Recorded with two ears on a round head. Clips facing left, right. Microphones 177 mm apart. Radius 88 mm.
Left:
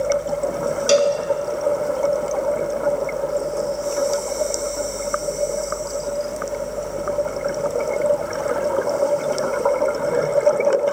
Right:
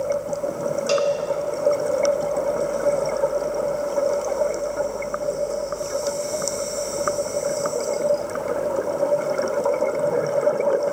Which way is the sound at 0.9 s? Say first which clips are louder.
Left 5 dB; 25° left (ahead or behind).